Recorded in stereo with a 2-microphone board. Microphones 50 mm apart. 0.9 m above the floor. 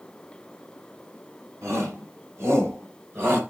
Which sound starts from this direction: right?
A shout, at 1.6 s.